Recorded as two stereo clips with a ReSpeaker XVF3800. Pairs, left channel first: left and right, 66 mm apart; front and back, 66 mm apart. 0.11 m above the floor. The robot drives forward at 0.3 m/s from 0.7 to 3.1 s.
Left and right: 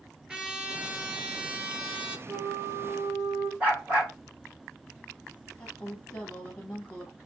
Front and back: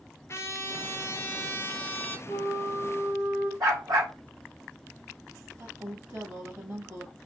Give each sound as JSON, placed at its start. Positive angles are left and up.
{"t": 0.3, "sound": "a trumpet", "azimuth_deg": -15, "distance_m": 1.4}
{"t": 2.3, "sound": "a flute", "azimuth_deg": -125, "distance_m": 2.5}
{"t": 3.6, "sound": "a dog barking", "azimuth_deg": -155, "distance_m": 3.0}
{"t": 5.6, "sound": "a woman speaking", "azimuth_deg": 160, "distance_m": 2.5}